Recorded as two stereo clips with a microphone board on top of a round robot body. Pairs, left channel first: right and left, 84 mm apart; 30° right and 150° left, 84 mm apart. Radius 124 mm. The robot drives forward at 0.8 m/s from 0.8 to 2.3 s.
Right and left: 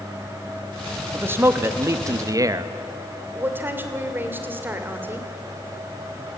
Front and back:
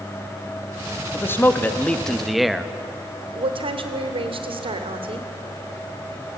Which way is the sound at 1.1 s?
30° left.